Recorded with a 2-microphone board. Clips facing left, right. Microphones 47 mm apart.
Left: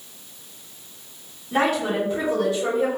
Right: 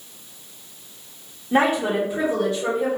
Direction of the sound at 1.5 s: 35° right (ahead or behind).